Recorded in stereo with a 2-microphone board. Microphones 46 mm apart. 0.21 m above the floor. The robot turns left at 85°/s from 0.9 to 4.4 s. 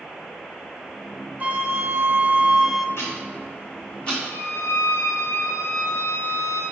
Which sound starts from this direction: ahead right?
A flute, at 1.4 s.